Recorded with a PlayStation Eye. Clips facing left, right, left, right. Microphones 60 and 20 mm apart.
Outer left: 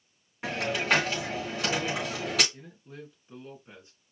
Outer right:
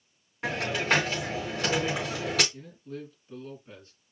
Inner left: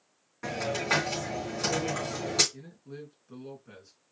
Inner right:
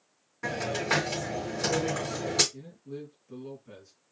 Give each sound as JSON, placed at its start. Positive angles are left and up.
{"t": 0.4, "sound": "a hiss", "side_deg": 5, "distance_m": 3.5}
{"t": 2.5, "sound": "a man speaking", "side_deg": 15, "distance_m": 2.5}